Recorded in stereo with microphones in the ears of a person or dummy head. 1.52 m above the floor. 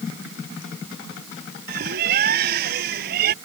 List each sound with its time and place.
1.7 s a bird: 60° right (ahead or behind)